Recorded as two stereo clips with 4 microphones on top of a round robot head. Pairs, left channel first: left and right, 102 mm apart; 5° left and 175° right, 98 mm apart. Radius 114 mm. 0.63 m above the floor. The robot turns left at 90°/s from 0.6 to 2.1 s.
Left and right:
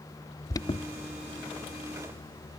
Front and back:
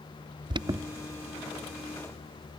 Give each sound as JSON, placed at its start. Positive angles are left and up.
{"t": 0.5, "sound": "an alarm", "azimuth_deg": 145}